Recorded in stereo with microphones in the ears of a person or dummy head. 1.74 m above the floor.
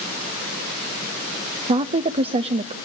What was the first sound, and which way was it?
A woman speaking, 35° right (ahead or behind).